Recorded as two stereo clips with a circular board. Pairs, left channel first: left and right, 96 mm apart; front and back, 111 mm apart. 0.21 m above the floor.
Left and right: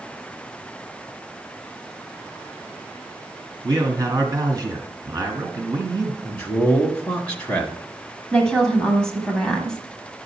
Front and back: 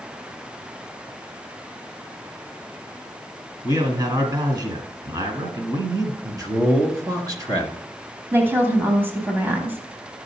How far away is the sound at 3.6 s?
About 2.0 m.